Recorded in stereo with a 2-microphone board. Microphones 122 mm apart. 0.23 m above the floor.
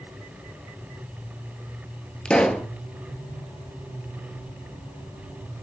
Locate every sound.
2.2 s a pop: 5° left (ahead or behind), 1.3 m